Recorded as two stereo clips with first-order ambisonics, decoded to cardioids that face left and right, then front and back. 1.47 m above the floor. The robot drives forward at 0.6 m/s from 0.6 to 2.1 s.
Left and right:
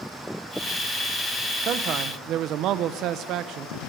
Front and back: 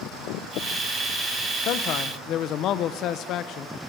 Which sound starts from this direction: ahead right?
A man speaking, at 1.6 s.